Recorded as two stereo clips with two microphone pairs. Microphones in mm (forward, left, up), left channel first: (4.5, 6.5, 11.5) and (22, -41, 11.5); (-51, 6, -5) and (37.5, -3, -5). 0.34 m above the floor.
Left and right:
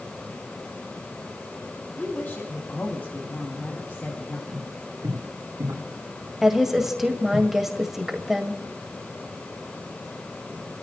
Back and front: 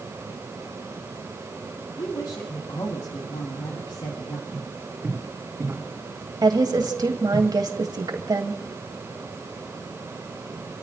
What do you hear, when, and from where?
2.0 s a woman speaking: 155° left, 2.5 m
4.5 s footsteps: 75° right, 5 m; by 7.4 s 80° right, 3.5 m
6.4 s a woman speaking: 15° left, 1.9 m